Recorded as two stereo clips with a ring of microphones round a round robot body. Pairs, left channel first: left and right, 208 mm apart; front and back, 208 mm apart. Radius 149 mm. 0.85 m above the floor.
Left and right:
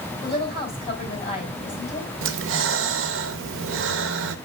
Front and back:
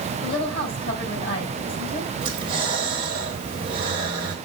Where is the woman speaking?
30° left, 5 m.